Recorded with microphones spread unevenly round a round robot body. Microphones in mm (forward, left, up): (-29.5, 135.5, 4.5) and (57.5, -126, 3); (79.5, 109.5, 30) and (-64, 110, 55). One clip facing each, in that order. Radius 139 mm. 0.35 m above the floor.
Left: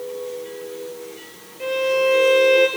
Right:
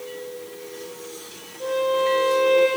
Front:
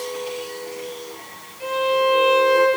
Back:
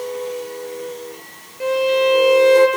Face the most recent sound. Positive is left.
turn(degrees=155)